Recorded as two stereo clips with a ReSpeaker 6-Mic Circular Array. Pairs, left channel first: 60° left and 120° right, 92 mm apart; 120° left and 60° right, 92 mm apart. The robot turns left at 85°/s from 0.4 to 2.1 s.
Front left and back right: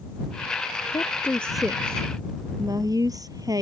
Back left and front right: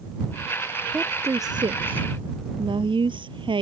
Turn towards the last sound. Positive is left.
turn(degrees=-75)